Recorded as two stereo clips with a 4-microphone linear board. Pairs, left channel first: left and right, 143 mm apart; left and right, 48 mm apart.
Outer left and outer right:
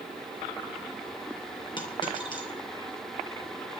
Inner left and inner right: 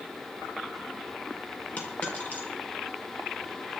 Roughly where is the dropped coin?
Left.